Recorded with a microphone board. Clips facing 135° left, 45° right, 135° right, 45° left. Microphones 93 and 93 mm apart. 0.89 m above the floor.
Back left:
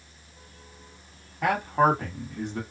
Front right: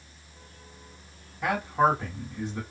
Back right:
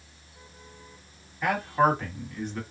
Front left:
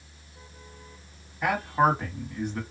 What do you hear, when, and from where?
1.4 s a man speaking: 120° left, 1.5 m